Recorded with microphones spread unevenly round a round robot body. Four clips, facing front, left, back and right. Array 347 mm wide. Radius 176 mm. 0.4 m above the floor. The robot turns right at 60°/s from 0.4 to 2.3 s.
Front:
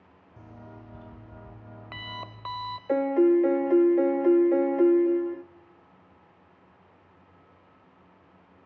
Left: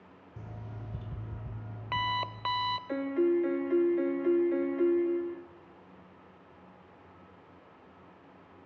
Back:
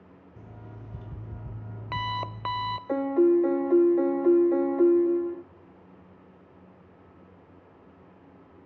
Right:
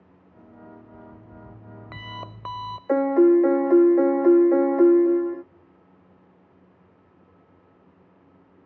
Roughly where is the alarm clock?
Left.